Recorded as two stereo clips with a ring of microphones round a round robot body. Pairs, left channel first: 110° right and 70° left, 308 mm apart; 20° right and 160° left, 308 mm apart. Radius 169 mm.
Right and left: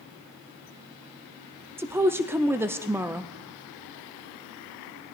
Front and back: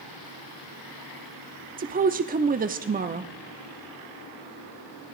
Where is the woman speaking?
140° left, 0.7 m.